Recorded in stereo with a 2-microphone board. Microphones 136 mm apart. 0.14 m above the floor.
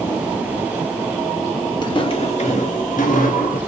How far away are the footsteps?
About 1.1 m.